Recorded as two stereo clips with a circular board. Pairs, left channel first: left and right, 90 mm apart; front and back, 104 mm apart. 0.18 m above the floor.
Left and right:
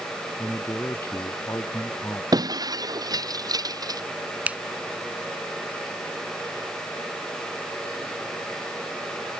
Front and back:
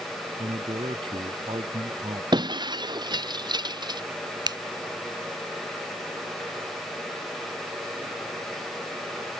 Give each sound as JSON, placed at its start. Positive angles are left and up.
{"t": 0.4, "sound": "a man speaking", "azimuth_deg": 150}
{"t": 2.3, "sound": "breaking glass", "azimuth_deg": -135}
{"t": 4.5, "sound": "a finger snap", "azimuth_deg": -160}